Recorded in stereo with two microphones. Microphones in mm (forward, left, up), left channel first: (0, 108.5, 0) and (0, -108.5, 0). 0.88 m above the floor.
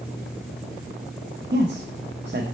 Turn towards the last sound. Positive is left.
turn(degrees=-50)  # may be behind; listen again after turning